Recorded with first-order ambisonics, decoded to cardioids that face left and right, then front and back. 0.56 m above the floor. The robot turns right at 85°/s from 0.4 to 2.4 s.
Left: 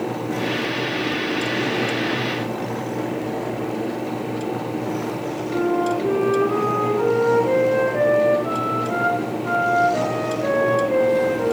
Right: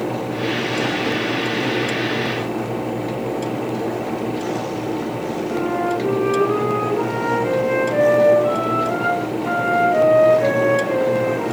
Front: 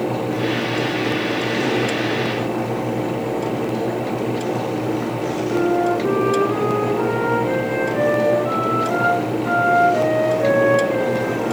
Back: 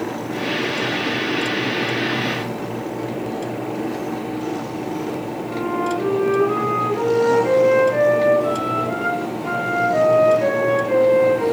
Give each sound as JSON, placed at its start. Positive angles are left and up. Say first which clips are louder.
{"t": 5.5, "sound": "a flute", "louder": "left 1 dB, front 4 dB", "azimuth_deg": -130, "distance_m": 6.0}